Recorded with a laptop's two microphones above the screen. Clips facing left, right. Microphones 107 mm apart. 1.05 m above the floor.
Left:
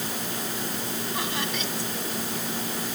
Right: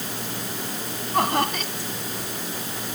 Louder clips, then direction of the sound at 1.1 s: Right 12 dB; 50° right (ahead or behind).